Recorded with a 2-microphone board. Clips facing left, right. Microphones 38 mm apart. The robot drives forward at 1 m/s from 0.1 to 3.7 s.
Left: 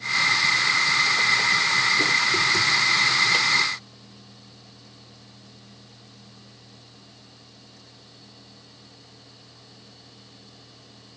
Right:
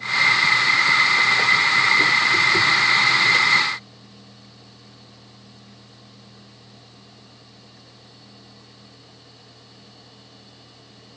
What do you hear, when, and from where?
Only background noise.